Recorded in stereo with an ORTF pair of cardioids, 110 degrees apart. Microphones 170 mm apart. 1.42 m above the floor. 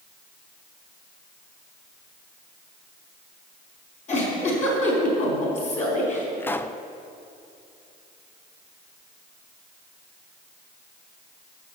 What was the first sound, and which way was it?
A giggle, 45° left.